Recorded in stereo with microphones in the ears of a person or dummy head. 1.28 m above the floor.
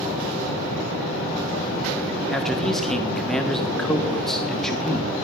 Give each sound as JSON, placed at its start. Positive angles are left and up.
{"t": 2.3, "sound": "a man speaking", "side_deg": 0, "distance_m": 1.3}